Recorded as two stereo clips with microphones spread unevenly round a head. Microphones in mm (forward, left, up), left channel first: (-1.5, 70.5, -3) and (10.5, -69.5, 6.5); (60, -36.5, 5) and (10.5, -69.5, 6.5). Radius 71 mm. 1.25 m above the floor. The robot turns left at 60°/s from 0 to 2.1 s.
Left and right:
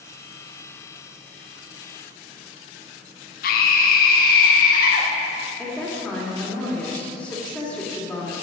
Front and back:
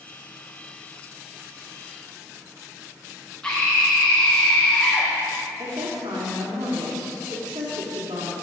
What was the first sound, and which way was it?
A scream, 115° left.